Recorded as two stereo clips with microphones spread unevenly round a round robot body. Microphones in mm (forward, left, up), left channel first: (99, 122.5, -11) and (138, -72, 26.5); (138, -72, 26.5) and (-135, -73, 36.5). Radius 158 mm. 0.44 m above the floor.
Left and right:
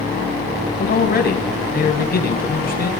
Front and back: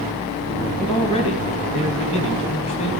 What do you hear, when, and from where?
0.8 s a man speaking: 70° left, 2.5 m